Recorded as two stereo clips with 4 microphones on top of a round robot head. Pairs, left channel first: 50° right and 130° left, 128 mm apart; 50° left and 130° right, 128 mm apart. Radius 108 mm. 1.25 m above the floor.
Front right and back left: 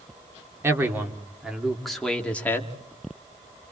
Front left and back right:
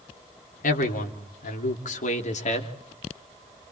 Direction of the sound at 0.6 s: 55° left.